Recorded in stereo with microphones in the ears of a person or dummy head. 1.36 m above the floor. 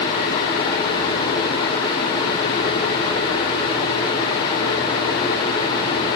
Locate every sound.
Only background noise.